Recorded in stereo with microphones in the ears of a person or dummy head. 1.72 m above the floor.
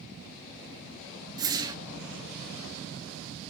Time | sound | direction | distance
1.4 | a whoosh | 25° right (ahead or behind) | 1.0 m